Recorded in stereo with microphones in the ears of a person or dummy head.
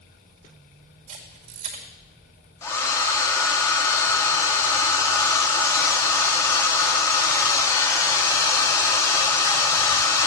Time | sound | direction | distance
1.1 | a camera shutter | 40° right (ahead or behind) | 1.7 m
2.6 | a hair dryer | 20° left (ahead or behind) | 0.5 m